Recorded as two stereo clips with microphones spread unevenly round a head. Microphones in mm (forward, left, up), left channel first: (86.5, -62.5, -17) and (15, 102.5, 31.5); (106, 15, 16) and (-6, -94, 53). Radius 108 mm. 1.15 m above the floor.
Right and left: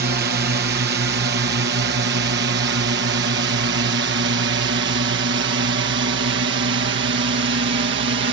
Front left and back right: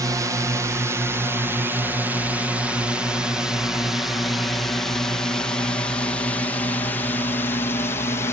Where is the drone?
145° left; by 8.3 s 105° left.